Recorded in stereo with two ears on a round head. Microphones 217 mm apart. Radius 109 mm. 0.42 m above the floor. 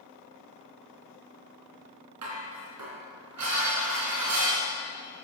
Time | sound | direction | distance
2.2 | dishes clattering | 80° right | 4 m